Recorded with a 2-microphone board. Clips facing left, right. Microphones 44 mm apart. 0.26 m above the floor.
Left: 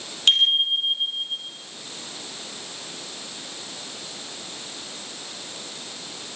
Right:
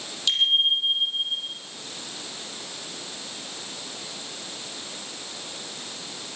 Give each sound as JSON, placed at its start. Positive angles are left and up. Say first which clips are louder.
{"t": 0.3, "sound": "a bicycle bell", "louder": "left 2 dB", "side_deg": 45, "distance_m": 6.0}